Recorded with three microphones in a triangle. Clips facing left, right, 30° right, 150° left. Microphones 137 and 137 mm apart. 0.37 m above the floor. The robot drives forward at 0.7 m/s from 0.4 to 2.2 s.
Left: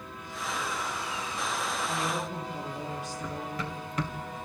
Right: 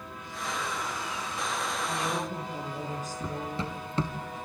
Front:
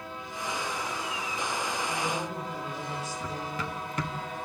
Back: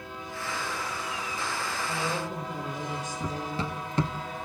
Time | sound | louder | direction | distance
1.9 | a woman speaking | even, even | 135° right | 8 m
3.2 | running footsteps | right 1 dB, back 2 dB | 150° right | 1.7 m